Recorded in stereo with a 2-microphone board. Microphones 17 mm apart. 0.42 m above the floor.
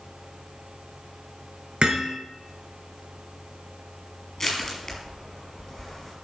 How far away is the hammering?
About 4 m.